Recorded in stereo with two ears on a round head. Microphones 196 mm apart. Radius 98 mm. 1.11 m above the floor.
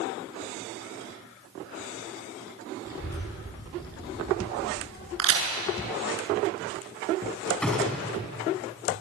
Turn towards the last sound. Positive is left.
turn(degrees=5)  # may be behind; listen again after turning